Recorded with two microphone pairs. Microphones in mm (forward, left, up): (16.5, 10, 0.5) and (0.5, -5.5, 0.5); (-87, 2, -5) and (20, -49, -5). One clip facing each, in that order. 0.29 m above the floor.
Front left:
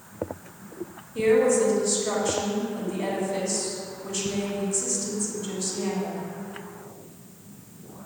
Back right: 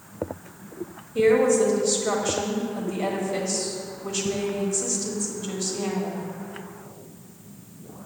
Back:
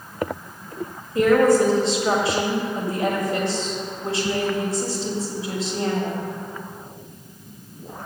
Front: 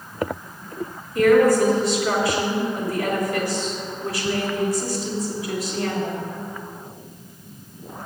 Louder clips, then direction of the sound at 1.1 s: Back right 2 dB, front 1 dB; 175° left.